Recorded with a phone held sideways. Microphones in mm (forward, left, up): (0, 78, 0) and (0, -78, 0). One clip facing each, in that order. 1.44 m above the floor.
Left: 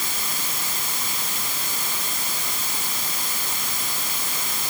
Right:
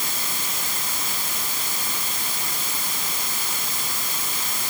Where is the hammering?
I don't hear hammering.